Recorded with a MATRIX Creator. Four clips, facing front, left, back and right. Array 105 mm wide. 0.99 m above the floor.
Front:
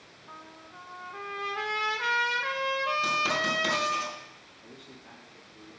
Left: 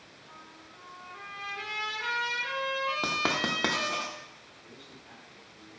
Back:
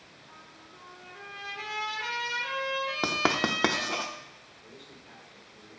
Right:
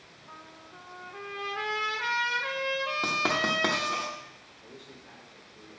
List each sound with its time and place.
0.3 s a trumpet: 25° right, 0.8 m
3.0 s writing: 175° left, 0.7 m
4.6 s a man speaking: 5° right, 2 m